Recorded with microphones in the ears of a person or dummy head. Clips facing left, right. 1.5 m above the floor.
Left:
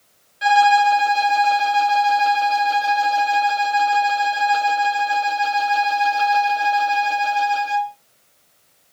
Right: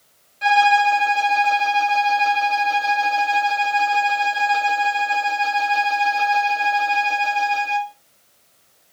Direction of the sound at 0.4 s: 10° left (ahead or behind).